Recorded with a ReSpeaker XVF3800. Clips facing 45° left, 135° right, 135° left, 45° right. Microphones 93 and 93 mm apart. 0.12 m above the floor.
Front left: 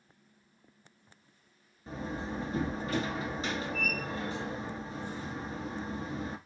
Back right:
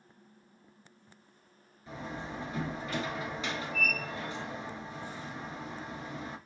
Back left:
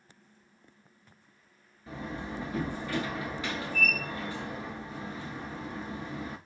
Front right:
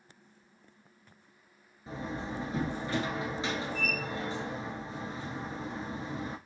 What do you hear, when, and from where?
1.9 s a door slam: 10° left, 1.5 m